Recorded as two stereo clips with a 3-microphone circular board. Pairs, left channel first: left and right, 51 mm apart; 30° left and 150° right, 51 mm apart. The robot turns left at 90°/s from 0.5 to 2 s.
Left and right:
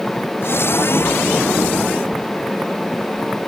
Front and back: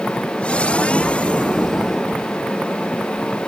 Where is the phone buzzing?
I don't hear a phone buzzing.